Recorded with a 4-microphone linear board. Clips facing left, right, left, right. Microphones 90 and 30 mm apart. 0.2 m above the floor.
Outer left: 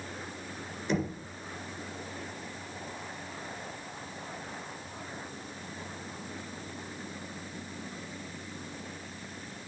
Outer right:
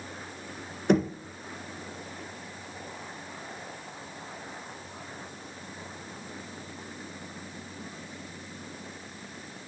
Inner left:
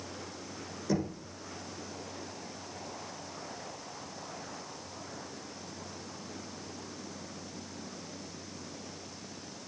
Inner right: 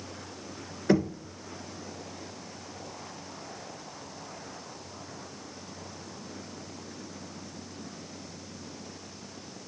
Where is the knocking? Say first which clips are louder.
Outer right 8 dB, inner right 7 dB; 60° right (ahead or behind), 1.6 m.